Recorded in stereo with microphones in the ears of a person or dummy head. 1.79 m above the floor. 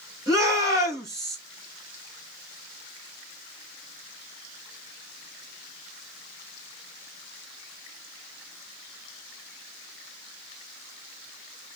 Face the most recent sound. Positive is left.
turn(degrees=-25)  # may be behind; listen again after turning